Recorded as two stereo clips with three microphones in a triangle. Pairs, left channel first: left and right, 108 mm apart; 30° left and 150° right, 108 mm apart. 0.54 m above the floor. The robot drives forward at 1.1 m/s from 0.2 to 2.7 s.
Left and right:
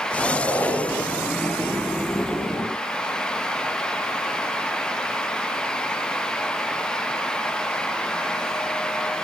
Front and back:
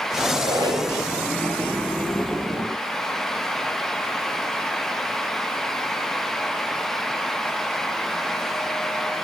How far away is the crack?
I don't hear a crack.